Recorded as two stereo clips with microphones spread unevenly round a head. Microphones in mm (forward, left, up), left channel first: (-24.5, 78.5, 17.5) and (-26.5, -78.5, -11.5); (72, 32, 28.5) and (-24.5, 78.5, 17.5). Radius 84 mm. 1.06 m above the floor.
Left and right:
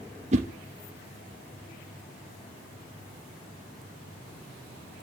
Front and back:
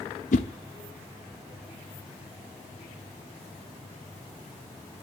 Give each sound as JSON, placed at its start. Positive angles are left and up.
{"t": 0.3, "sound": "a whoosh", "azimuth_deg": -35, "distance_m": 0.7}